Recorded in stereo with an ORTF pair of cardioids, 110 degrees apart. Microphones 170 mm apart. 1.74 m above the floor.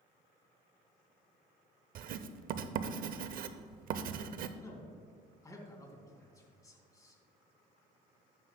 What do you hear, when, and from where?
1.9 s writing: 60° right, 0.7 m
4.6 s a man speaking: 20° left, 3 m